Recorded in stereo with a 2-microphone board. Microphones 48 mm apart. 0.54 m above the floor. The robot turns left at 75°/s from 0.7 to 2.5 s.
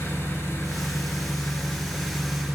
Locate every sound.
0.0 s an engine running: 115° left, 4.5 m; by 2.5 s 20° right, 4.5 m